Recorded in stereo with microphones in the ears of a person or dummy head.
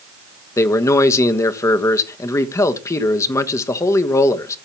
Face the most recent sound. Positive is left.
turn(degrees=15)  # may be behind; listen again after turning